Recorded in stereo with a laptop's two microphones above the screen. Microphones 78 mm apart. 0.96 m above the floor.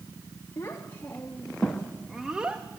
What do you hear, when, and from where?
0.6 s a child speaking: 35° left (ahead or behind), 1.4 m; by 2.6 s 20° right (ahead or behind), 0.9 m